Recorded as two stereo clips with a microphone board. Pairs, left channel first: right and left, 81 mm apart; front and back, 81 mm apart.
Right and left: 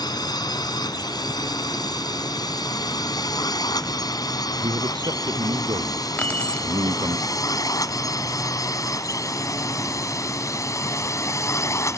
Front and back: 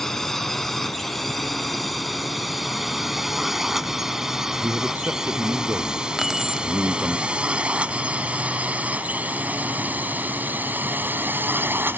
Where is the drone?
85° right; by 12.0 s 125° right.